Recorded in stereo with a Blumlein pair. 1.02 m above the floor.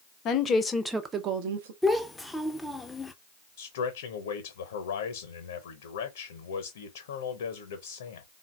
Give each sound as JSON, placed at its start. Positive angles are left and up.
{"t": 0.2, "sound": "a woman speaking", "azimuth_deg": 30, "distance_m": 0.8}
{"t": 1.8, "sound": "a child speaking", "azimuth_deg": 5, "distance_m": 0.6}
{"t": 3.6, "sound": "a man speaking", "azimuth_deg": 60, "distance_m": 0.8}